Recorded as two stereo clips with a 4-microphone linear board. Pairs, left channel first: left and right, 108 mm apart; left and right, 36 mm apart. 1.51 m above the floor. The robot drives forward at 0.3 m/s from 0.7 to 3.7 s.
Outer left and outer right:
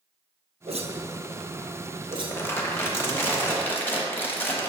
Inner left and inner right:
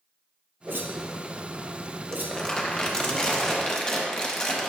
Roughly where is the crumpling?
Left.